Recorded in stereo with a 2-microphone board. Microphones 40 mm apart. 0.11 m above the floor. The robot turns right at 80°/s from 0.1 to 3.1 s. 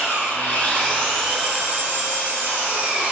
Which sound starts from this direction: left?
An engine running, at 0.0 s.